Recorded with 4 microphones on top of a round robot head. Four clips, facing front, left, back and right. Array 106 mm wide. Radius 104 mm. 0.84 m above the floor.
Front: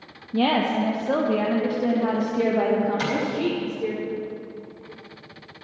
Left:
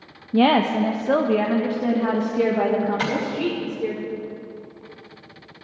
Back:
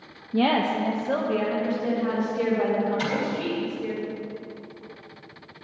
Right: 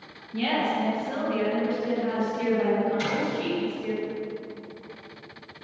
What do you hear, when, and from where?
0.3 s a woman speaking: 100° left, 0.8 m; by 4.0 s 50° left, 2.5 m
3.0 s tapping: 65° left, 4 m